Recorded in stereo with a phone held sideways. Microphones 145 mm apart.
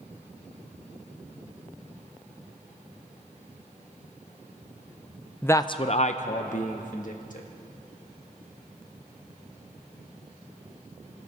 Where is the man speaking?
10° left (ahead or behind), 0.5 m; by 7.5 s 65° left (ahead or behind), 1.9 m.